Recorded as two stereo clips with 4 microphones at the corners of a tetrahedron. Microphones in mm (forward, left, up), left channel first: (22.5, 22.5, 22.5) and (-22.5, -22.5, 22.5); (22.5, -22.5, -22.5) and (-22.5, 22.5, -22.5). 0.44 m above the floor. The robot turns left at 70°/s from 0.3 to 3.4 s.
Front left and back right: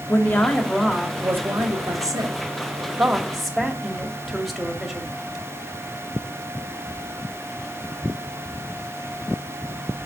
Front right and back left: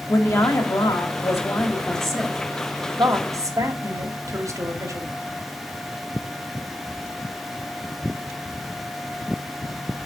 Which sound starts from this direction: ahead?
A woman speaking, at 0.1 s.